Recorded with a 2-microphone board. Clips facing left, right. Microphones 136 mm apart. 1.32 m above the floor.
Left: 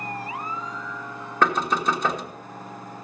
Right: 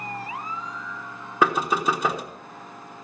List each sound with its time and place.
1.4 s knocking: 10° right (ahead or behind), 1.3 m